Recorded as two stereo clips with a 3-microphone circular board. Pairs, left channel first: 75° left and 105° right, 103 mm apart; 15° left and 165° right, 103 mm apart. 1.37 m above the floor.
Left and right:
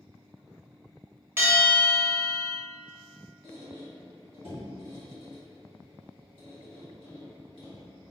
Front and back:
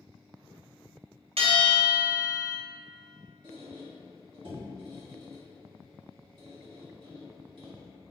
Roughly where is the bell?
Behind.